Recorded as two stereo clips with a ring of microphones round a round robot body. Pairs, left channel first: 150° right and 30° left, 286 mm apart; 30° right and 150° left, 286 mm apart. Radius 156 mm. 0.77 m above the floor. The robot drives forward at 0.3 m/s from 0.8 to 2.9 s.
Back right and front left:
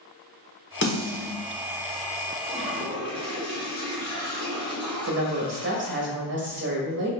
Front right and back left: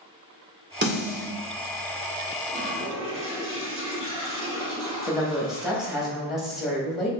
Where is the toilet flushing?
120° left, 1.8 m; by 6.1 s 125° left, 1.9 m.